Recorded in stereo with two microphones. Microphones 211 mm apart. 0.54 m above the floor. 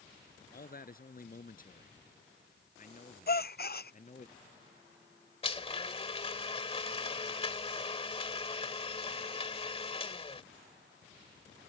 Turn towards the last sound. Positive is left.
turn(degrees=30)  # may be behind; listen again after turning